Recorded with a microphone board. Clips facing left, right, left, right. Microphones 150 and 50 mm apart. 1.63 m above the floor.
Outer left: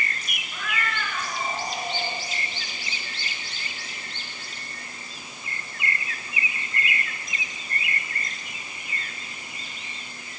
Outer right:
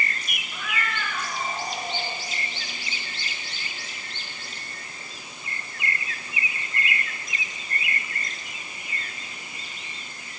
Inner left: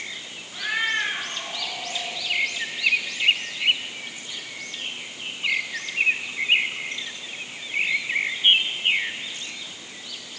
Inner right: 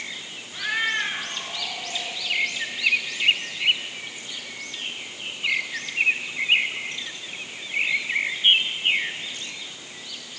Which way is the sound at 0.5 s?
5° right (ahead or behind).